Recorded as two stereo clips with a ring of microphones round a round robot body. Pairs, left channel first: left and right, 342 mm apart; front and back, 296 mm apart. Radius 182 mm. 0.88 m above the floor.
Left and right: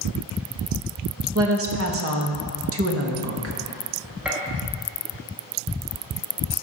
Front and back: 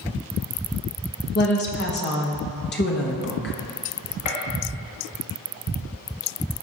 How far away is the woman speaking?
About 1.2 m.